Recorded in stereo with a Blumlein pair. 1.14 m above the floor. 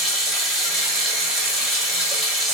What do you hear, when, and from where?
0.0 s running water: 5° right, 1.1 m